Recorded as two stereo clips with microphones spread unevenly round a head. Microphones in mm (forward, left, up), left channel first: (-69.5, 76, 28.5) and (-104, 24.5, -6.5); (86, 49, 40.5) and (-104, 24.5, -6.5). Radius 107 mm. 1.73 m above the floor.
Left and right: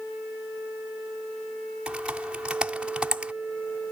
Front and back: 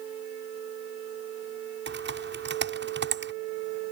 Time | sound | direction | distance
1.9 | typing on a keyboard | 160° left | ?